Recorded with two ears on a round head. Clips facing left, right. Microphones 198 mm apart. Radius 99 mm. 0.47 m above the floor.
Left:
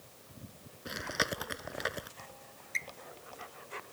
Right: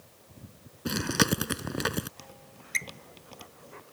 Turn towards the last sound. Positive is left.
turn(degrees=-45)  # may be behind; listen again after turning